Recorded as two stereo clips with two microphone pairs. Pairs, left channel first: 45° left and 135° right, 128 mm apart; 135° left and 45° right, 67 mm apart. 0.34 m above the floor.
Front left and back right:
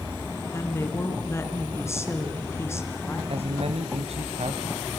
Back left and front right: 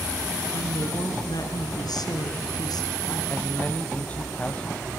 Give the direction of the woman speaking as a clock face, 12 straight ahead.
8 o'clock.